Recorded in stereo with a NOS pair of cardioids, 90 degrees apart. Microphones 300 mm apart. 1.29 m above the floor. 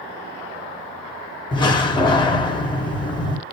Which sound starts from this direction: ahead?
A door slam, at 1.5 s.